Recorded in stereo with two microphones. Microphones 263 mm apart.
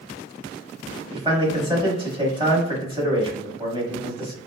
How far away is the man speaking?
About 1.0 m.